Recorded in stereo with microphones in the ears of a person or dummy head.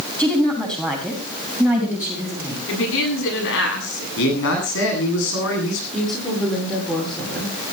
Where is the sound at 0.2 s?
5° left (ahead or behind), 7 m; by 2.6 s 10° right (ahead or behind), 6.5 m.